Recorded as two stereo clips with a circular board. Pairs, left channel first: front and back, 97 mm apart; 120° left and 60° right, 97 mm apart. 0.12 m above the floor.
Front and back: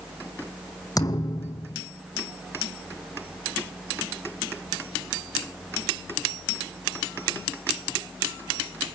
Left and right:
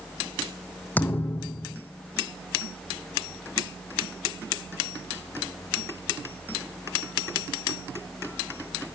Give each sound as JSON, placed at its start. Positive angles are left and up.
{"t": 1.0, "sound": "a thud", "azimuth_deg": 50, "distance_m": 1.7}